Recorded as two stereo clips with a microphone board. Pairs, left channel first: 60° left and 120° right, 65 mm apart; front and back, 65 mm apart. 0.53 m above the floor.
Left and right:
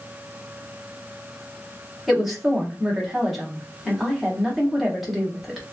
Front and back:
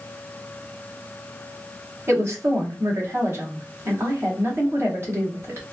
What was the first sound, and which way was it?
A woman speaking, 150° left.